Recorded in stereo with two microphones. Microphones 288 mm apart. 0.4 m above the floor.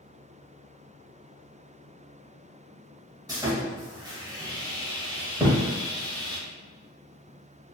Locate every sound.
3.3 s sawing: 15° right (ahead or behind), 0.6 m
5.4 s a thud: 10° right (ahead or behind), 0.8 m